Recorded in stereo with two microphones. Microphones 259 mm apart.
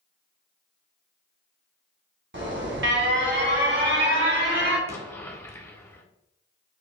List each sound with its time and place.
2.3 s an alarm: 45° right (ahead or behind), 1.0 m
4.9 s an explosion: 10° left (ahead or behind), 0.6 m